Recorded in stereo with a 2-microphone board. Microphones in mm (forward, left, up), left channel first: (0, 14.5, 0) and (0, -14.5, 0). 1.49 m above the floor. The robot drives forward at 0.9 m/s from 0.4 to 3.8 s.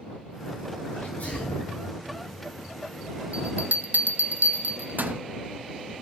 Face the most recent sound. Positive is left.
turn(degrees=-75)  # may be behind; listen again after turning